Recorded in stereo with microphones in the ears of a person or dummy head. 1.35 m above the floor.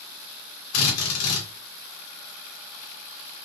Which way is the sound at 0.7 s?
85° left.